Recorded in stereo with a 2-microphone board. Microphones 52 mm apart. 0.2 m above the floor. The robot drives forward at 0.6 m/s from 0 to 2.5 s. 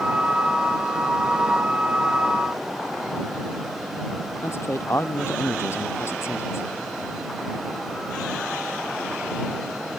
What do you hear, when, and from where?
4.4 s a man speaking: 55° left (ahead or behind)